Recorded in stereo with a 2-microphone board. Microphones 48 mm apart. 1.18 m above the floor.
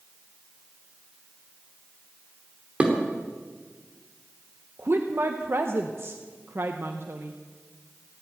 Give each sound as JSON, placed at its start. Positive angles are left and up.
{"t": 2.8, "sound": "dishes clattering", "side_deg": -25, "distance_m": 2.5}
{"t": 4.8, "sound": "a woman speaking", "side_deg": -55, "distance_m": 0.8}